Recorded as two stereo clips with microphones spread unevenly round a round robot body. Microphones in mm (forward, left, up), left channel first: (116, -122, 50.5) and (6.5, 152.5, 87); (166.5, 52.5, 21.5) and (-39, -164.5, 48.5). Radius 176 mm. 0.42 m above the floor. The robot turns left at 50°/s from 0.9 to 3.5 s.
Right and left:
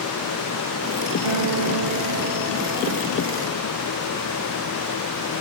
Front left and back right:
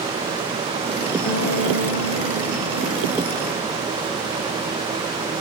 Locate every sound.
1.2 s a guitar: 115° left, 6 m; by 3.8 s straight ahead, 6 m